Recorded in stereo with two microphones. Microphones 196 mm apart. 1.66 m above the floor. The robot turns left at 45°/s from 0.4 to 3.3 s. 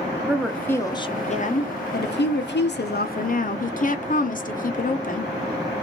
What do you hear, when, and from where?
0.3 s a woman speaking: straight behind, 0.6 m; by 5.3 s 50° left, 0.6 m